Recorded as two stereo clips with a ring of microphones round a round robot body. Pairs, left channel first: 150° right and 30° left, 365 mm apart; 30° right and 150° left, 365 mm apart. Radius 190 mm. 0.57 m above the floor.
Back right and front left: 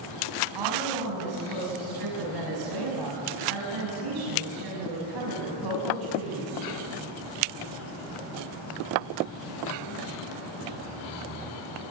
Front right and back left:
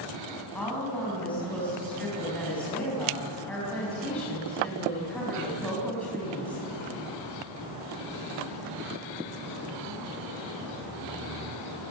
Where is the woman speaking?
55° left, 5.5 m.